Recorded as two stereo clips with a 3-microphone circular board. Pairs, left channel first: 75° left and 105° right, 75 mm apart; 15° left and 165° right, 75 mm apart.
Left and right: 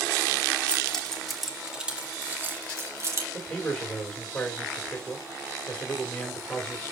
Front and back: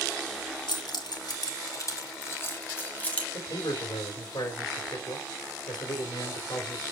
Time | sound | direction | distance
0.7 | keys jangling | straight ahead | 1.9 m
3.3 | a man speaking | 5° right | 3.5 m